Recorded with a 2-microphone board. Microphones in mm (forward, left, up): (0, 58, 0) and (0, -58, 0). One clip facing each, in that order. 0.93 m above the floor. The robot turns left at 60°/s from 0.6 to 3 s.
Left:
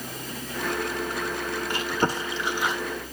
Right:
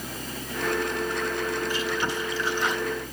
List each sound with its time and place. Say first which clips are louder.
1.7 s chewing: left 2 dB; 65° left (ahead or behind), 1.4 m; by 2.8 s centre (ahead or behind), 1.4 m